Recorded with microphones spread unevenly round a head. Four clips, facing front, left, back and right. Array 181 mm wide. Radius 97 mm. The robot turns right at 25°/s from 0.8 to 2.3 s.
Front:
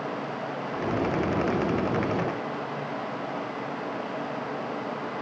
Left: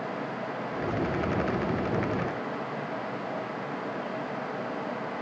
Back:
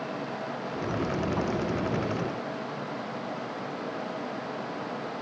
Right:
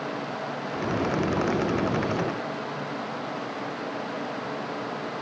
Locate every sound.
Only background noise.